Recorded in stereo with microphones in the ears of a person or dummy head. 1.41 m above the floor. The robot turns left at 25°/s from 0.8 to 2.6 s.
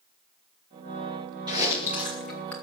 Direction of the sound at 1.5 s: 20° right (ahead or behind).